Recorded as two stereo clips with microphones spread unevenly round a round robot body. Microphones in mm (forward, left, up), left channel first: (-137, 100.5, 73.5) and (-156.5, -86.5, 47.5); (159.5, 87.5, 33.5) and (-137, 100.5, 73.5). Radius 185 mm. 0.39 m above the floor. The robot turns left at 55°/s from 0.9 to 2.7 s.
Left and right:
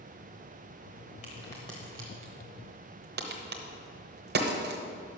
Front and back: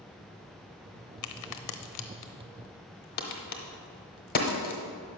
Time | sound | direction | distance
1.2 | a crack | 20° left | 0.9 m